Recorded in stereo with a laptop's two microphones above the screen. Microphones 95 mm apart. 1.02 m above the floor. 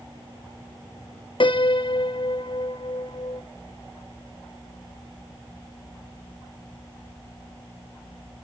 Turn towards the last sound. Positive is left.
turn(degrees=60)  # may be behind; listen again after turning